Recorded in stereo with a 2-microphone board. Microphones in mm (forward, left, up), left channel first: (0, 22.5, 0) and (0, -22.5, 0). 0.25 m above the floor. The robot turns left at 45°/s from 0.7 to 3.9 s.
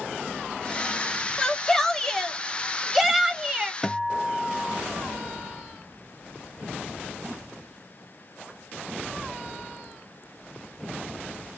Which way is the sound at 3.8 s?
15° left (ahead or behind).